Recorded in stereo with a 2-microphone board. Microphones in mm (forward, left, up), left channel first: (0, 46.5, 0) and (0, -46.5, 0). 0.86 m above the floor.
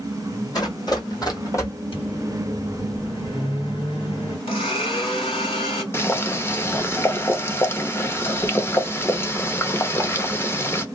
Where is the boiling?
25° left (ahead or behind), 0.6 m.